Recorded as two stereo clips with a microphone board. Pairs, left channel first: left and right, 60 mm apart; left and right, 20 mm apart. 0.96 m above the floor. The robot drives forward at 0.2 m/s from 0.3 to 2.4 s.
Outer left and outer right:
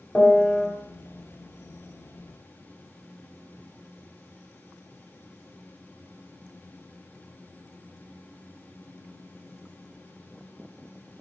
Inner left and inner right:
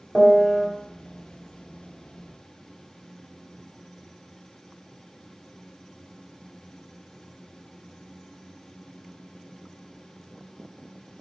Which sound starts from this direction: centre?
A piano, at 0.1 s.